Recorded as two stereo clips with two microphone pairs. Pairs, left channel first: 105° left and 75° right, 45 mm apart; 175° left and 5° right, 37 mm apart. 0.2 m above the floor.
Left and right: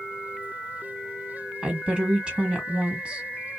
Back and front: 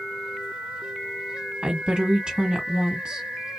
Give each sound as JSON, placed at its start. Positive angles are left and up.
{"t": 1.6, "sound": "a woman speaking", "azimuth_deg": -40, "distance_m": 1.7}